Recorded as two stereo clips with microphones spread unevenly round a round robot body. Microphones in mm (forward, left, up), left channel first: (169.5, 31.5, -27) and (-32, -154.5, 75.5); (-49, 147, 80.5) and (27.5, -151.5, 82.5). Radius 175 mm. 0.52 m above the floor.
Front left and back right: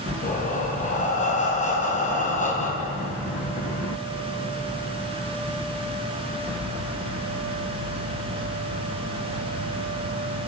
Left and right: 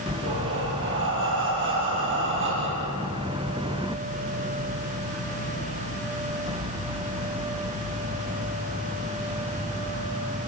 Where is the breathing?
20° right, 5.5 m.